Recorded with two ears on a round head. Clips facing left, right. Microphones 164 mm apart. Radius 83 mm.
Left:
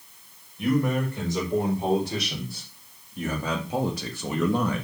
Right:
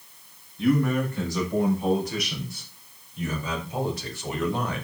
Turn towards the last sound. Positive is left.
turn(degrees=80)